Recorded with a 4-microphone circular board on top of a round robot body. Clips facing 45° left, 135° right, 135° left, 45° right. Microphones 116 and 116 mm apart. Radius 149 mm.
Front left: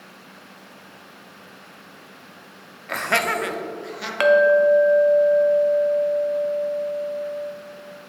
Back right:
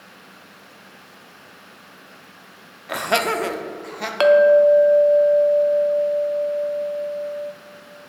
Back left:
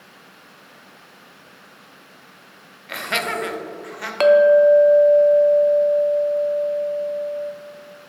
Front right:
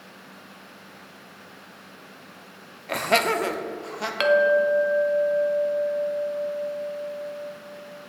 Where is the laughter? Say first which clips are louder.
Back right 2 dB, front right 4 dB; 60° right, 0.8 m; by 4.1 s 105° right, 1.2 m.